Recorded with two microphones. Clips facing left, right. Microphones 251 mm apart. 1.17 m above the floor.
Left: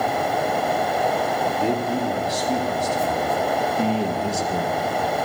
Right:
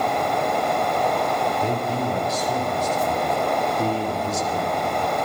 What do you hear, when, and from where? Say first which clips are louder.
1.6 s a man speaking: left 2 dB; 80° left, 3.5 m; by 4.8 s 65° left (ahead or behind), 1.5 m